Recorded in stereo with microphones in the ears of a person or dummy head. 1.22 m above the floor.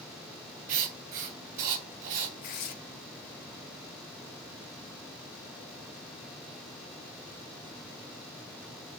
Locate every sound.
0.7 s writing: 45° right (ahead or behind), 1.8 m
2.4 s tearing paper: 40° left (ahead or behind), 0.9 m